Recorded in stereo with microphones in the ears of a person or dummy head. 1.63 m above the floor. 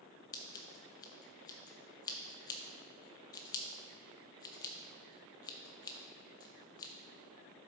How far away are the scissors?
About 0.5 m.